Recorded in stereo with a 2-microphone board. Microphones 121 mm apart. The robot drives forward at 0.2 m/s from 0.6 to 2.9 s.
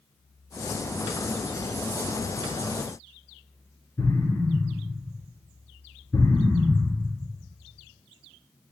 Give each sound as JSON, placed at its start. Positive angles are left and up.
{"t": 4.0, "sound": "an explosion", "side_deg": 25, "distance_m": 3.0}